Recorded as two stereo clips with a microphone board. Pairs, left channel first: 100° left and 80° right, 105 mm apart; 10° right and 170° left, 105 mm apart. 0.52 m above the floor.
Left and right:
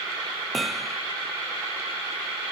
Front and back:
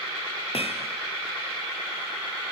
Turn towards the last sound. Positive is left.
turn(degrees=10)